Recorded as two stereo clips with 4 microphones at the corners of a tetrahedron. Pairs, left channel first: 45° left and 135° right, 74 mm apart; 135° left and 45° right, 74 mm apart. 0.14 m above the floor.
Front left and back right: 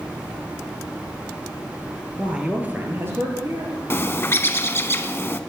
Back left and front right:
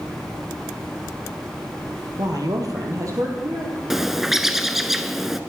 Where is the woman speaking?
60° right, 2 m; by 3.8 s 95° right, 3.5 m.